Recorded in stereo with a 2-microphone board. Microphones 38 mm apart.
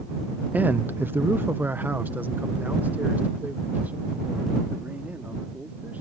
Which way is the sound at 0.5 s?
45° right (ahead or behind).